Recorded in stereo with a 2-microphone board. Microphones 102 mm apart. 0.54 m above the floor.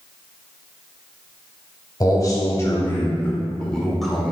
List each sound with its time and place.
2.0 s a man speaking: 40° left (ahead or behind), 1.8 m; by 4.3 s 5° right (ahead or behind), 1.5 m